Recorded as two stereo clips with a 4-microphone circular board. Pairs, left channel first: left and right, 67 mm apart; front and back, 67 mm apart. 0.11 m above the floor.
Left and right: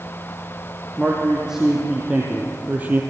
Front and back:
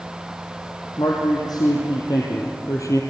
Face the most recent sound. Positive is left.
turn(degrees=-30)